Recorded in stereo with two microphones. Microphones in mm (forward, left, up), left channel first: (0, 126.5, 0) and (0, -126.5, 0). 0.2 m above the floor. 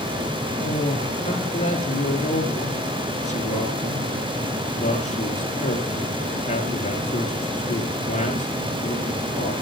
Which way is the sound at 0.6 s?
30° left (ahead or behind).